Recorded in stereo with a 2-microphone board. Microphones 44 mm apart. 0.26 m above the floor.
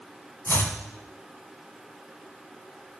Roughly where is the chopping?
Left.